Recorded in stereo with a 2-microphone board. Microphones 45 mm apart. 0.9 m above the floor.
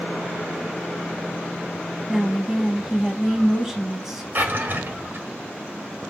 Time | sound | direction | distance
2.1 | a woman speaking | 10° right (ahead or behind) | 0.7 m
4.3 | a drawer | 50° right (ahead or behind) | 0.8 m